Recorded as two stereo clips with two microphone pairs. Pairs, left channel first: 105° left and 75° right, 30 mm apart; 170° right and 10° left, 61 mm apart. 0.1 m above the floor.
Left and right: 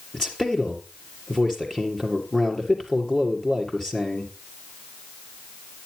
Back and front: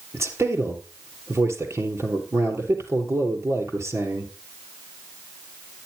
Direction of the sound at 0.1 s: 40° left.